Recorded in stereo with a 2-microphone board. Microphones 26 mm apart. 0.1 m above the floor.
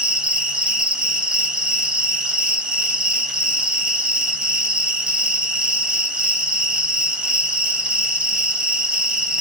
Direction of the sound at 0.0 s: 35° right (ahead or behind).